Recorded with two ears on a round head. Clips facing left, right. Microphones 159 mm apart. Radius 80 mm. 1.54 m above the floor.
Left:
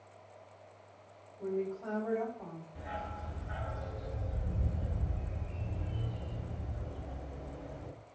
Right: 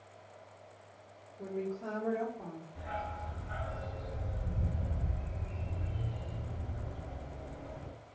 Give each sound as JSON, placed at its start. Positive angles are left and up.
{"t": 1.4, "sound": "a woman speaking", "side_deg": -70, "distance_m": 1.7}
{"t": 2.8, "sound": "a dog barking", "side_deg": 20, "distance_m": 0.9}